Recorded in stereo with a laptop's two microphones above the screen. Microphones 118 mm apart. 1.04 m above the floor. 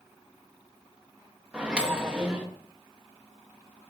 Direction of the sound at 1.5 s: 10° right (ahead or behind).